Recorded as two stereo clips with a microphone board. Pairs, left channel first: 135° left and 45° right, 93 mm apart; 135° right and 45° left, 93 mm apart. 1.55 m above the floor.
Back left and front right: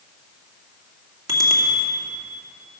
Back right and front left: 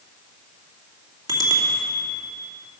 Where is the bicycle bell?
Straight ahead, 2 m.